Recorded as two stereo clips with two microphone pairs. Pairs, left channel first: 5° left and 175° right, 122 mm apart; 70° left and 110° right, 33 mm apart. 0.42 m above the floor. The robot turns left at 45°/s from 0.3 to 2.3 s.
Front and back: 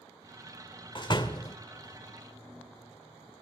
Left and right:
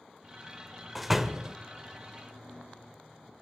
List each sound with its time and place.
0.9 s a door slam: 15° right, 1.1 m; by 1.6 s 45° right, 1.1 m